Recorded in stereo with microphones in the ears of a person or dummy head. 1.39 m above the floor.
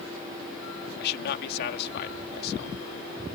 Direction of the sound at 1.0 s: 55° left (ahead or behind).